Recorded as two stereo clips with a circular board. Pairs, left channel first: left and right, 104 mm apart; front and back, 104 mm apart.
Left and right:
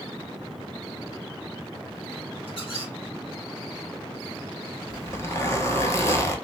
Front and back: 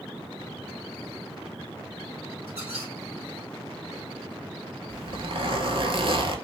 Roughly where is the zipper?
Behind left.